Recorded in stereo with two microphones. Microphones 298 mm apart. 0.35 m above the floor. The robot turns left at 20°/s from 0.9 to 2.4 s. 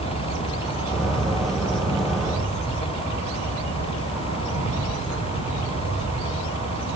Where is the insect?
115° left, 9.5 m; by 7.0 s 85° left, 9.5 m.